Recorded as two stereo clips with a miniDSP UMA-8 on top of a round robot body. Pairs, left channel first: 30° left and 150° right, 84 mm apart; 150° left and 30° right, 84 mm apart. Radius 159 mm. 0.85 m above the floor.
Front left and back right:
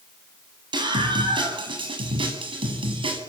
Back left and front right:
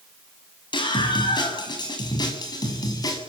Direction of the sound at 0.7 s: 175° left.